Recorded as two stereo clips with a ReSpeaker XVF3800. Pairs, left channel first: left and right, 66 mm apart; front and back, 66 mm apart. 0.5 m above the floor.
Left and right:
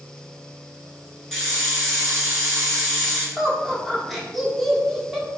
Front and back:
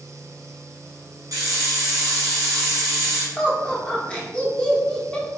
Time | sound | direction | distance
1.3 | a hiss | 175° left | 1.2 m
3.4 | laughter | 5° right | 0.6 m